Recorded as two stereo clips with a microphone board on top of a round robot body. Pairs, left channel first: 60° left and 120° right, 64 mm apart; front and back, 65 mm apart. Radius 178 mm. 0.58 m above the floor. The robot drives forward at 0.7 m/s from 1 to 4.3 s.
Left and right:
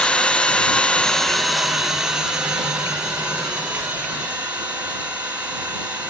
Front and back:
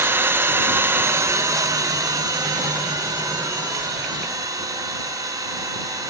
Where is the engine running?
135° left, 0.8 m; by 6.1 s 170° left, 3 m.